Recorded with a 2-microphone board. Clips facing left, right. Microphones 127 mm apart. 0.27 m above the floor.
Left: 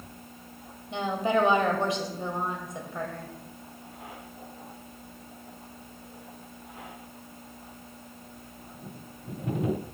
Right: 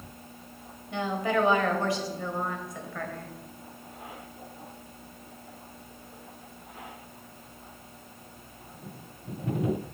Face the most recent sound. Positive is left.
turn(degrees=20)  # may be behind; listen again after turning